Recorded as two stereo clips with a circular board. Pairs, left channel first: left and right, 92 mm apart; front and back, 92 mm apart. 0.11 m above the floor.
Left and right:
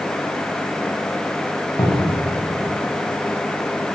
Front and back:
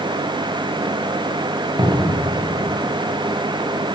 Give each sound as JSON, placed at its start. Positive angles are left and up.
{"t": 1.8, "sound": "a cupboard door", "azimuth_deg": 140, "distance_m": 6.0}